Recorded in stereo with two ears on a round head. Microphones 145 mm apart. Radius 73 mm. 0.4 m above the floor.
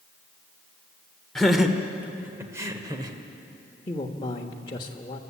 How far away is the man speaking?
About 1.1 m.